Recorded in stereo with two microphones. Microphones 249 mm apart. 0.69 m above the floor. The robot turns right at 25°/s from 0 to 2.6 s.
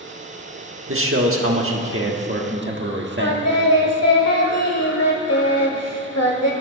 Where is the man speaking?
100° right, 1.5 m; by 3.4 s 60° right, 1.5 m.